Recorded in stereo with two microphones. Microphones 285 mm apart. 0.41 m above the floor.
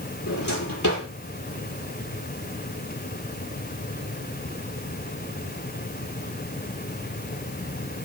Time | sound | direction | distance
0.3 | a drawer | 80° left | 7 m